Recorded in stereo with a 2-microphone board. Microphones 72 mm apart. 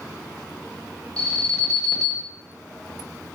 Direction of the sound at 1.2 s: 15° left (ahead or behind).